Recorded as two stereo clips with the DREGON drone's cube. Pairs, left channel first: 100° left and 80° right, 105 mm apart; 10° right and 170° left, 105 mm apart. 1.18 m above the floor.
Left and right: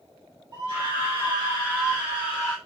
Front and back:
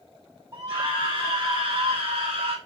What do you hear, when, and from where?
0.5 s a scream: 135° right, 3.5 m; by 2.6 s 165° right, 4 m